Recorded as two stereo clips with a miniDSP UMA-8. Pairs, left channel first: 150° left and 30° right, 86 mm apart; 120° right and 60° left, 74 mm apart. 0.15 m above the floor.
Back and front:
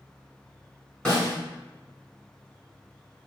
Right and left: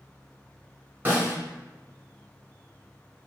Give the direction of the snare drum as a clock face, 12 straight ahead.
9 o'clock.